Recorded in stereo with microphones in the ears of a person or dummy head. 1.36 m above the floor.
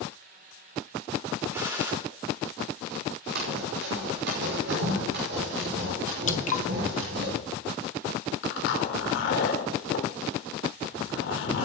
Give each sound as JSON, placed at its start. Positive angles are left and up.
{"t": 1.5, "sound": "a gunshot", "side_deg": -15, "distance_m": 2.5}
{"t": 3.4, "sound": "running footsteps", "side_deg": -65, "distance_m": 4.5}
{"t": 6.3, "sound": "dripping", "side_deg": 50, "distance_m": 0.8}
{"t": 8.4, "sound": "a zipper", "side_deg": 75, "distance_m": 2.0}